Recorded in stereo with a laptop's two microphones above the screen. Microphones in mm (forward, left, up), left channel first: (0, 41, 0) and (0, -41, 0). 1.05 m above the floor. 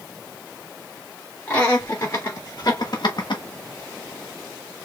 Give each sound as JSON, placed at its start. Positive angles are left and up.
{"t": 1.5, "sound": "laughter", "side_deg": 20, "distance_m": 2.5}